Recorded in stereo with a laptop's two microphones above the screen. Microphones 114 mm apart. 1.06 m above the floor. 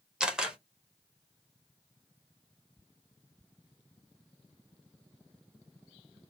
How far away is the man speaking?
No man speaking in this recording.